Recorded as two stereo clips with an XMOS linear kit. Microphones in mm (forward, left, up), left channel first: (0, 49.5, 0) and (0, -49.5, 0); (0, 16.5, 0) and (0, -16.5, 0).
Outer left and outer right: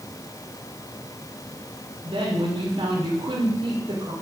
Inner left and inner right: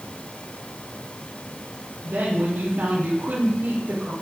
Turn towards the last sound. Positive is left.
turn(degrees=-65)  # may be behind; listen again after turning